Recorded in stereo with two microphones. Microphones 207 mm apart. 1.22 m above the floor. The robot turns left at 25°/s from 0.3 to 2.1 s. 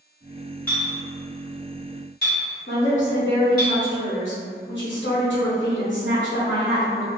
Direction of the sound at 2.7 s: 65° left (ahead or behind).